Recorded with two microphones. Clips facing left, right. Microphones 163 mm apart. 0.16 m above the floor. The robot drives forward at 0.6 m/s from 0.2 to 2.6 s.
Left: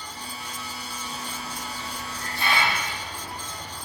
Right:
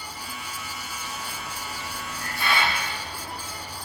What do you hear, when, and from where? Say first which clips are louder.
1.5 s a hiss: left 1 dB; 30° left (ahead or behind), 1.0 m; by 3.7 s 25° left (ahead or behind), 1.1 m